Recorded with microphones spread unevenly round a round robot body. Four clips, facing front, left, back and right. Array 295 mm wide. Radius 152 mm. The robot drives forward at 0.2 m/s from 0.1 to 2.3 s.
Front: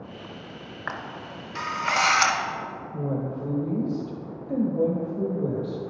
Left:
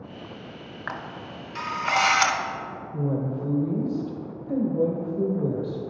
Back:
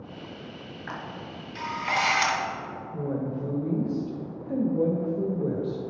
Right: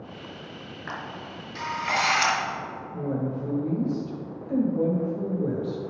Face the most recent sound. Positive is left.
turn(degrees=120)